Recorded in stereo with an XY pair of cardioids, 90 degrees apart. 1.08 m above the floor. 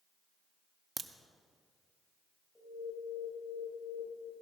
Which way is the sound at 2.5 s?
20° left.